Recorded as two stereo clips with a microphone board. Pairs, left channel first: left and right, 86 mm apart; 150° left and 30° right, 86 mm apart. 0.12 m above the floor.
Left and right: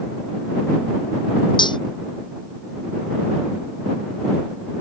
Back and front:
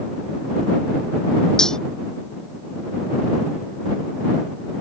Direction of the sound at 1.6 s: 65° left.